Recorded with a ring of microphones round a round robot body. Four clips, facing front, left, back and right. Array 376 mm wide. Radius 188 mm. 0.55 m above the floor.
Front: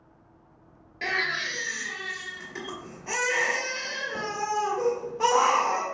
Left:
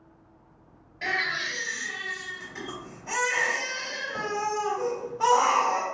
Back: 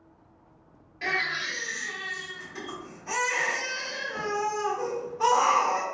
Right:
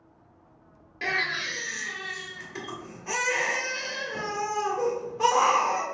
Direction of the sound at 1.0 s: 60° right.